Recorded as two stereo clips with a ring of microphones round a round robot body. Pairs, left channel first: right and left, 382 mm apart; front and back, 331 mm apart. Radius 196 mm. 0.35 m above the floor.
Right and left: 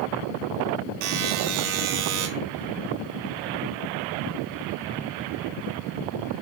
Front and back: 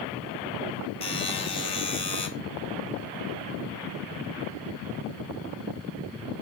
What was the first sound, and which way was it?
A buzzer, 75° left.